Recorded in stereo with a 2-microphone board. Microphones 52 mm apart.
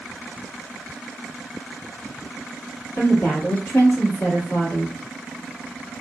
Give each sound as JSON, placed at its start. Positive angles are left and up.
{"t": 3.0, "sound": "a woman speaking", "side_deg": 40, "distance_m": 1.4}